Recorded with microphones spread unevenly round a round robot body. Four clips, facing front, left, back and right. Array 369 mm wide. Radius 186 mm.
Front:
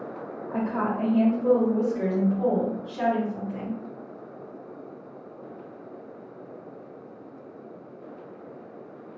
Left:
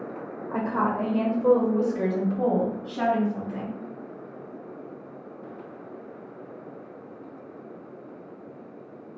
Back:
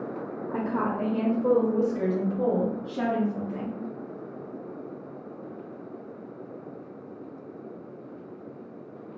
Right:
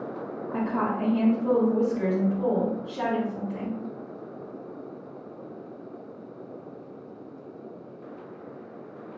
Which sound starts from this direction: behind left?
A woman speaking, at 0.5 s.